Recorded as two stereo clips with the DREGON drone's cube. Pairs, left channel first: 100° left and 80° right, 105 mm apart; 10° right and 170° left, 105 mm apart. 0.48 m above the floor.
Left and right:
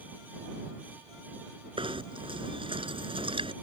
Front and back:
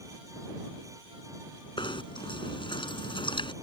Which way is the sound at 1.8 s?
50° right.